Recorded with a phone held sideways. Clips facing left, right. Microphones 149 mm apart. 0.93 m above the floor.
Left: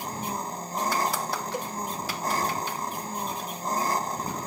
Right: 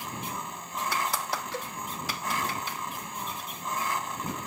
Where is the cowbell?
15° left (ahead or behind).